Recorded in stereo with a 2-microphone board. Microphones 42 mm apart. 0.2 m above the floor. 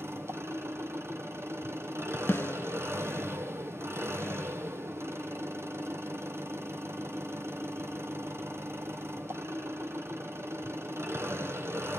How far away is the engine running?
About 1.9 m.